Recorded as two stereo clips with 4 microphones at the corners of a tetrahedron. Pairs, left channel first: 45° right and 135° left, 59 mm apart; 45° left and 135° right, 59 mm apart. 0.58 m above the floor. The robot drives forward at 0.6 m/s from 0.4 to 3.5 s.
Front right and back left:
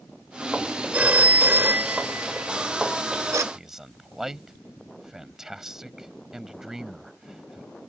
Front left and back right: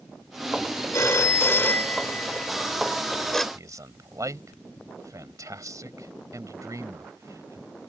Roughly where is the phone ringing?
Left.